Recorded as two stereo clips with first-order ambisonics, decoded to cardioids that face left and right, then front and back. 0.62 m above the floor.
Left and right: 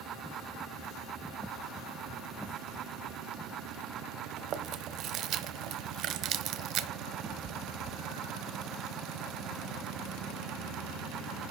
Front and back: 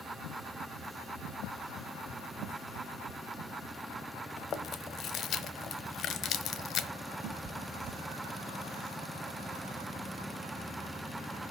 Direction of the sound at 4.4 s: 50° right.